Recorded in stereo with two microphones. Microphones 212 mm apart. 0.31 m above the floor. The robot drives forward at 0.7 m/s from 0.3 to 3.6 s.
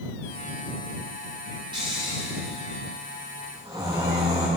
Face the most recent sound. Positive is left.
turn(degrees=-20)  # may be behind; listen again after turning